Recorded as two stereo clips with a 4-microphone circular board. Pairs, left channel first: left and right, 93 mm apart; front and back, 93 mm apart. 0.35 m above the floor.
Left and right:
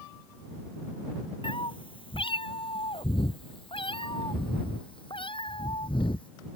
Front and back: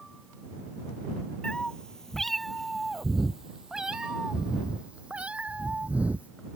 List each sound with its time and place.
1.4 s a cat meowing: 80° left; by 6.3 s 105° left